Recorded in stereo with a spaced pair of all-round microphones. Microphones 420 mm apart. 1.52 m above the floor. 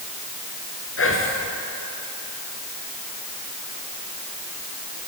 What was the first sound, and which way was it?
Whispering, 30° left (ahead or behind).